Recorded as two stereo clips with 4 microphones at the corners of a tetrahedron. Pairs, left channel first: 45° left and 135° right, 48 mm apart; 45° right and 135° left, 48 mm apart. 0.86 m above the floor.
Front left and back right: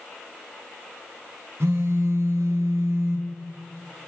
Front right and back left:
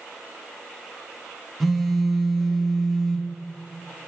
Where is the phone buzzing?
135° right, 1.0 m.